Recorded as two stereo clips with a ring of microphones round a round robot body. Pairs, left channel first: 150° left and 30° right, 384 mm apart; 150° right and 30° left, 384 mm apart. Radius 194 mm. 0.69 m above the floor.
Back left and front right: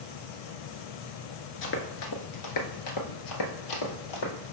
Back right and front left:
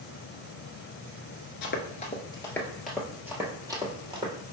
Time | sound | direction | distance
1.6 | running footsteps | 175° left | 0.7 m